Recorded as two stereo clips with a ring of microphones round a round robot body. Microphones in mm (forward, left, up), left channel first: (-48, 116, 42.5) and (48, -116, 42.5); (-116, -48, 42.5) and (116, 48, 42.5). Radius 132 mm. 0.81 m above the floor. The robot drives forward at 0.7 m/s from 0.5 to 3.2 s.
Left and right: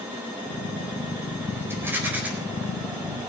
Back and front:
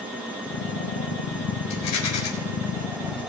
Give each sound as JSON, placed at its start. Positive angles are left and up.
{"t": 1.7, "sound": "a rattle", "azimuth_deg": -150, "distance_m": 4.0}